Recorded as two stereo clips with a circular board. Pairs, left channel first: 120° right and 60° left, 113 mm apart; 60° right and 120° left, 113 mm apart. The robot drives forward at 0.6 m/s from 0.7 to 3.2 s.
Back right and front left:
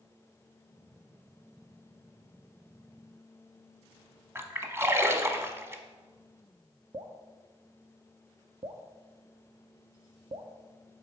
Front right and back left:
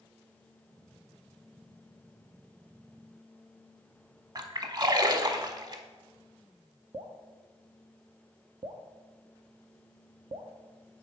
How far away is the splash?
About 0.7 m.